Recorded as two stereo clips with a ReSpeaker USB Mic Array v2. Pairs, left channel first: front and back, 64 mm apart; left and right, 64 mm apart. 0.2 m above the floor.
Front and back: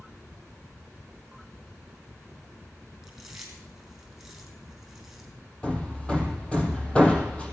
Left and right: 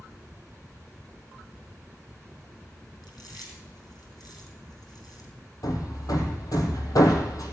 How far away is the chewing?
About 4.5 m.